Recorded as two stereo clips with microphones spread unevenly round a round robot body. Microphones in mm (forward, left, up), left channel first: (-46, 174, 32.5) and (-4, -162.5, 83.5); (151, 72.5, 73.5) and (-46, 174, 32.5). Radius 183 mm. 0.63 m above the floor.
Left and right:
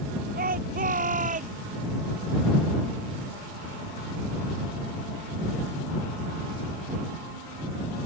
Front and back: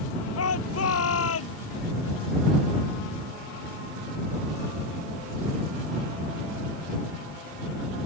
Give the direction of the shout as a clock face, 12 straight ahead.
1 o'clock.